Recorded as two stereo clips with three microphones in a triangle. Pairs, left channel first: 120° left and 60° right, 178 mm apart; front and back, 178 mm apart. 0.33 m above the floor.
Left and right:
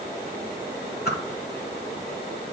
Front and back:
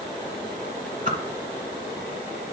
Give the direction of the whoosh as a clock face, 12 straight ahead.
7 o'clock.